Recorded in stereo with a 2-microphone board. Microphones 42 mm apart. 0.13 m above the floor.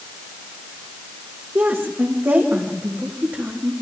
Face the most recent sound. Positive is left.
turn(degrees=-50)  # may be behind; listen again after turning